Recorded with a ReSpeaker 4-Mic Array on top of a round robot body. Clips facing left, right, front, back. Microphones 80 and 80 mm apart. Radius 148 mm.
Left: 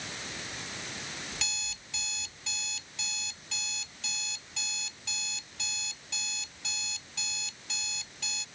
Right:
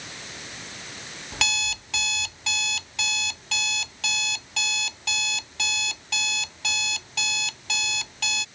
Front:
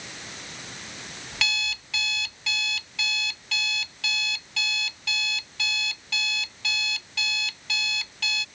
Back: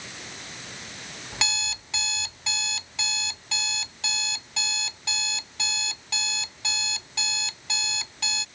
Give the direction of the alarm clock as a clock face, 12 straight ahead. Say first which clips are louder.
Right 12 dB, front 1 dB; 4 o'clock.